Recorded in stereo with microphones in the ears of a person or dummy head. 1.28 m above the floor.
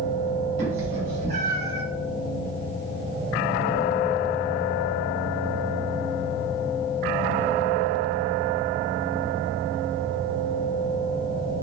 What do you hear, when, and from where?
0.6 s a cat meowing: 45° right (ahead or behind), 1.1 m; by 1.8 s 40° right (ahead or behind), 1.9 m